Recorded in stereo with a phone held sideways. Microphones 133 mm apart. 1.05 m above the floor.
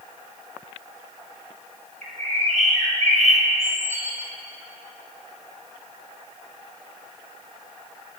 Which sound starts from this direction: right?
A bird, at 2.0 s.